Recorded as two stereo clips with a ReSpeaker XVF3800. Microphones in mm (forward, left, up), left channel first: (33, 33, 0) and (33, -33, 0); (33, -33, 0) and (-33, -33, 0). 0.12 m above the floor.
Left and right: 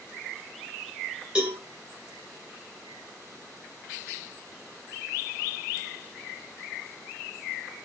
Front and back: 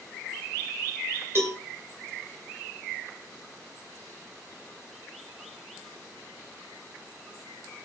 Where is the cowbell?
155° right, 2.5 m.